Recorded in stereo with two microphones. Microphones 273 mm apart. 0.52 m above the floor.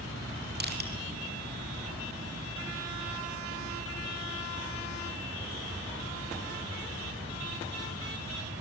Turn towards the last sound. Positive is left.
turn(degrees=-35)  # may be behind; listen again after turning